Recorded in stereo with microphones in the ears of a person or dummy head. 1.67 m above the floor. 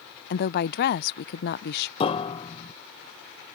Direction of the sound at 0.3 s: 55° left (ahead or behind).